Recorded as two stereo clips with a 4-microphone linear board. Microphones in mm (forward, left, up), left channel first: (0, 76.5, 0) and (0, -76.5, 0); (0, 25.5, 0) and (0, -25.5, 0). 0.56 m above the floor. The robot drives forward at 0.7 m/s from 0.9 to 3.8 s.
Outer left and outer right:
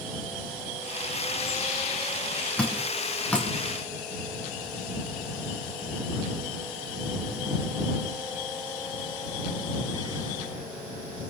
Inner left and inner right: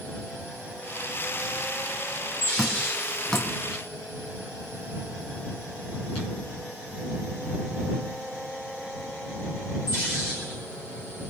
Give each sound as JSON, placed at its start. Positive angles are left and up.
{"t": 2.6, "sound": "dripping", "side_deg": 10, "distance_m": 4.0}